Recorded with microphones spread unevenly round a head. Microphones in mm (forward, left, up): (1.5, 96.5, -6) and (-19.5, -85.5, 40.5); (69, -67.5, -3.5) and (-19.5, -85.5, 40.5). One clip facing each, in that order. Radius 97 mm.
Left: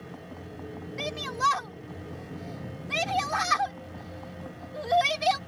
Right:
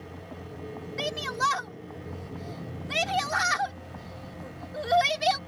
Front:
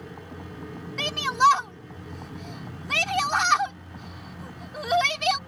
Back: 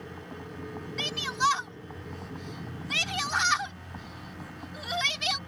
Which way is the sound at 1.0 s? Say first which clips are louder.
Right 1 dB, front 8 dB; 15° right.